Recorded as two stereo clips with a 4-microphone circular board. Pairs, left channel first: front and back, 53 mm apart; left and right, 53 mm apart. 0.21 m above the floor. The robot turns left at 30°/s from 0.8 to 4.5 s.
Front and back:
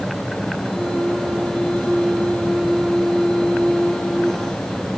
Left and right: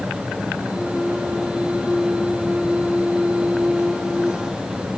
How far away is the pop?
I don't hear a pop.